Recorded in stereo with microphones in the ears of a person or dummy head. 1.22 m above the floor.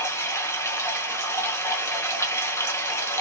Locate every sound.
0.0 s running water: 15° left (ahead or behind), 0.7 m